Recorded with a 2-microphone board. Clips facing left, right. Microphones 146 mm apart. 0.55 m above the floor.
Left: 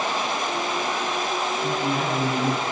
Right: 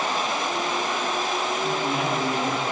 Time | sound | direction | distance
1.6 | a man speaking | 40° left (ahead or behind) | 8 m